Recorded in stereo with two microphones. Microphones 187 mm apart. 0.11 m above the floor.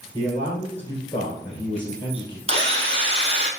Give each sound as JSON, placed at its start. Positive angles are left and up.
{"t": 0.1, "sound": "a man speaking", "side_deg": 10, "distance_m": 2.5}
{"t": 2.5, "sound": "a drill", "side_deg": -30, "distance_m": 2.0}